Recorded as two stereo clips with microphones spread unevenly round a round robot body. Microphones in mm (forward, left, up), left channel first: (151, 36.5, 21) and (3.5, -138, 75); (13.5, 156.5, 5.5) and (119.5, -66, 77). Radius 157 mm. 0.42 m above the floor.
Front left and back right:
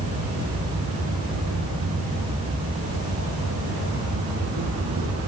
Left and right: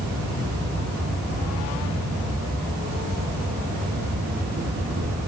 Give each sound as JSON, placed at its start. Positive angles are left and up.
{"t": 0.0, "sound": "an insect", "azimuth_deg": -125, "distance_m": 6.0}